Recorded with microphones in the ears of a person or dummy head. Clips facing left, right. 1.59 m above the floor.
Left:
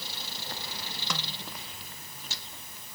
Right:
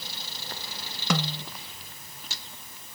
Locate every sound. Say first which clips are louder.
1.1 s a snare drum: right 12 dB; 55° right (ahead or behind)